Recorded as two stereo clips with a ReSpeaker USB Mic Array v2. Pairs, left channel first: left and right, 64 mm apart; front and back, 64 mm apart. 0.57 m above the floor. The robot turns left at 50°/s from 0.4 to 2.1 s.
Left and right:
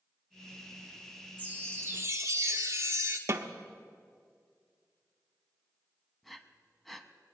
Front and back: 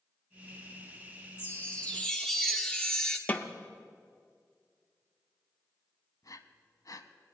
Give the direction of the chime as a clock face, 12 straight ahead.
1 o'clock.